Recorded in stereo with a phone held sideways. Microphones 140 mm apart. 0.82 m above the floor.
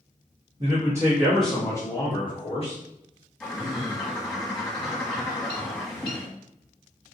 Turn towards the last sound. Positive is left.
turn(degrees=10)  # may be behind; listen again after turning